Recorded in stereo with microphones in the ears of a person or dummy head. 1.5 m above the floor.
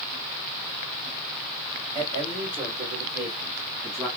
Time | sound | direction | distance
1.9 | a man speaking | 35° right (ahead or behind) | 2 m